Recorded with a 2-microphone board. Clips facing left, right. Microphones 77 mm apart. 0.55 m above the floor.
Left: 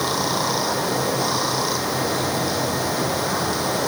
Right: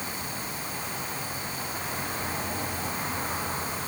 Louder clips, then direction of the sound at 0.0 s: Left 14 dB; 85° left.